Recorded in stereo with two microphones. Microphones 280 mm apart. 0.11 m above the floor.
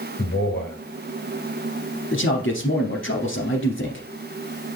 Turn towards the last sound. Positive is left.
turn(degrees=45)  # may be behind; listen again after turning